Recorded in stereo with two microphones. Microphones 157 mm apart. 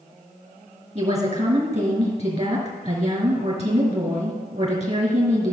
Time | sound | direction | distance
0.9 | a woman speaking | 45° right (ahead or behind) | 2.0 m